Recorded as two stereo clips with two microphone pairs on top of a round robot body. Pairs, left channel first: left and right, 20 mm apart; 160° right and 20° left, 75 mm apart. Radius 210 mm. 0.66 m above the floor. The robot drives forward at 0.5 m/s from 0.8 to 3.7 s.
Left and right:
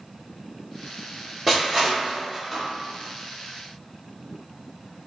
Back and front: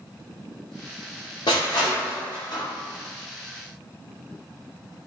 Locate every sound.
1.5 s crushing: 170° left, 0.6 m; by 2.6 s 175° left, 1.2 m